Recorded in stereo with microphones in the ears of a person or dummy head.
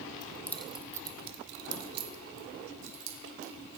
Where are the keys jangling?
20° left (ahead or behind), 1.2 m; by 3.8 s 75° right (ahead or behind), 3.5 m.